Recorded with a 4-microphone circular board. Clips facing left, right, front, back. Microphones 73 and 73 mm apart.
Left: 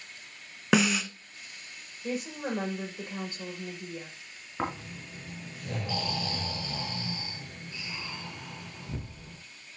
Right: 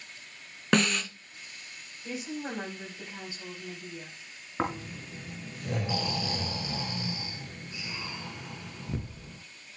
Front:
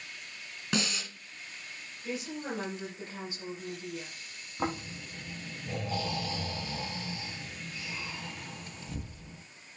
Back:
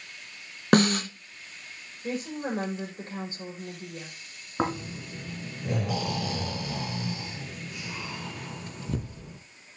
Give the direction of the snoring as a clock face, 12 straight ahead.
6 o'clock.